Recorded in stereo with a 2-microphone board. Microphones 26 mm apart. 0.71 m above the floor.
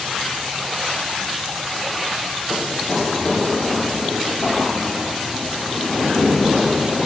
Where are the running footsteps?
25° left (ahead or behind), 0.9 m; by 7.1 s 75° left (ahead or behind), 3.5 m.